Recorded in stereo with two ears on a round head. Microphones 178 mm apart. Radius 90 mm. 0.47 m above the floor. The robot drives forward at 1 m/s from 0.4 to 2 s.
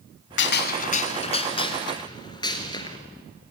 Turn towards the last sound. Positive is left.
turn(degrees=25)  # may be behind; listen again after turning